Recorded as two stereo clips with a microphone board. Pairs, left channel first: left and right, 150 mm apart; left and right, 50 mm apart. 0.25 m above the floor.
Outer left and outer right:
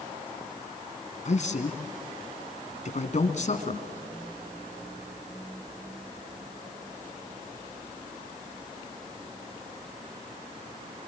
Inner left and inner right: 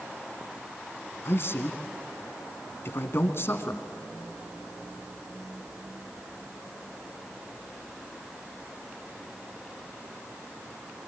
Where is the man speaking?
55° left (ahead or behind), 2.5 m.